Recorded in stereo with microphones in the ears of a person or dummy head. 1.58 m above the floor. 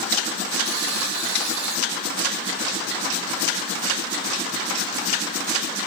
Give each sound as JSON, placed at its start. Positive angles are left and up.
{"t": 0.7, "sound": "a buzzer", "side_deg": -55, "distance_m": 0.7}